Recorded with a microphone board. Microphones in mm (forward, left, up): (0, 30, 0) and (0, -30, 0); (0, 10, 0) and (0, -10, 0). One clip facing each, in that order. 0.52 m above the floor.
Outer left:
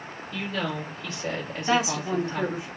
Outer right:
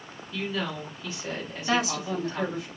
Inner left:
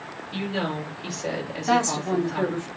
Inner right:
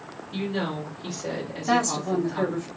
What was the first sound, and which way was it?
A woman speaking, 65° left (ahead or behind).